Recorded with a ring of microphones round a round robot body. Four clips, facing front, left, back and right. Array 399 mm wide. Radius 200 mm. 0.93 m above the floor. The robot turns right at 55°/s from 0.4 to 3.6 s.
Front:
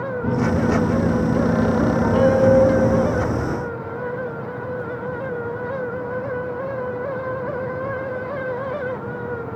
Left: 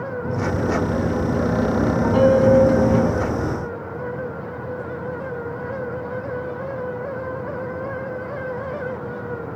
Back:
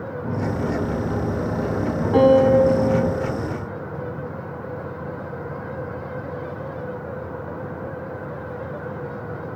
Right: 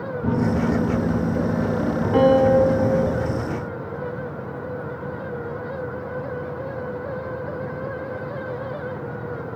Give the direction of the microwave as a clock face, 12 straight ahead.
2 o'clock.